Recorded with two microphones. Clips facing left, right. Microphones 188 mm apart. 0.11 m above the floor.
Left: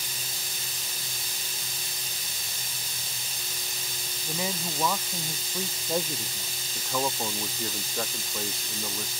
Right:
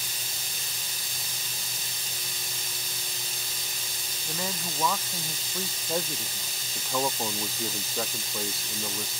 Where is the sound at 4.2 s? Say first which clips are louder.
Left 2 dB; 10° left (ahead or behind); by 6.5 s 5° left (ahead or behind).